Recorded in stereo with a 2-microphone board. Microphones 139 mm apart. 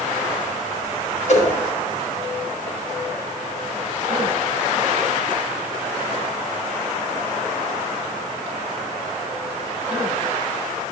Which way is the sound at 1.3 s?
55° left (ahead or behind).